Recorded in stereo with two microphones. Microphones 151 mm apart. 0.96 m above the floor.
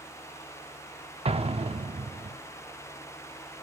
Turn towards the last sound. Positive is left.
turn(degrees=-40)  # may be behind; listen again after turning